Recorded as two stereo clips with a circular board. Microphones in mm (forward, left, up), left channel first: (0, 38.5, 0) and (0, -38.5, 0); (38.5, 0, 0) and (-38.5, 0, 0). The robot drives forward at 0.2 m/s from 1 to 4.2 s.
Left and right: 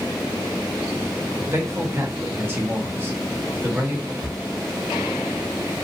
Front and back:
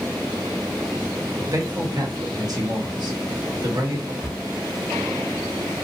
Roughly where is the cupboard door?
Left.